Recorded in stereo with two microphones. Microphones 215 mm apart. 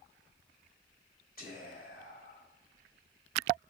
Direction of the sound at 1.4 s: 45° left (ahead or behind).